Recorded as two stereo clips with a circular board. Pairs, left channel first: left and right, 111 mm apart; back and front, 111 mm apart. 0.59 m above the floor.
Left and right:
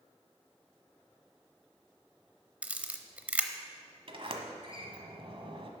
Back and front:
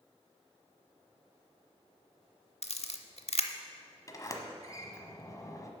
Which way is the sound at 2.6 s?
165° right.